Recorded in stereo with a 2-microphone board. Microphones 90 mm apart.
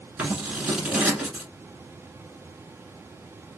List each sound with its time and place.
0.2 s scissors: 15° right (ahead or behind), 1.2 m